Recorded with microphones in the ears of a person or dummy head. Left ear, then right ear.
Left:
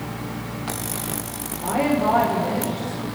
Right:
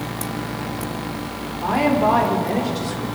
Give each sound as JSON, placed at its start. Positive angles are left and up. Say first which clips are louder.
{"t": 1.6, "sound": "a woman speaking", "louder": "right 3 dB", "side_deg": -65, "distance_m": 6.0}